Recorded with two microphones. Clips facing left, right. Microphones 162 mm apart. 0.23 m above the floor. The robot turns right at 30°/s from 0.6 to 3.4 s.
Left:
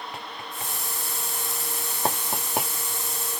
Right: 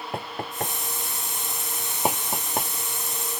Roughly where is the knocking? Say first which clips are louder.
Right 6 dB; right.